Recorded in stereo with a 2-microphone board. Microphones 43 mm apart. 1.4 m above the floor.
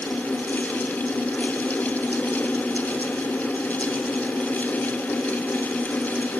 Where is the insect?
65° left (ahead or behind), 0.9 m.